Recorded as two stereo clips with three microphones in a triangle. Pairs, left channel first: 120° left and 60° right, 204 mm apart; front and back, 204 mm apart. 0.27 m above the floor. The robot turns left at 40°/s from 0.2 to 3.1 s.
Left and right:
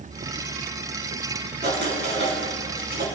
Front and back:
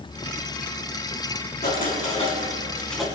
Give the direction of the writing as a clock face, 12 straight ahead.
1 o'clock.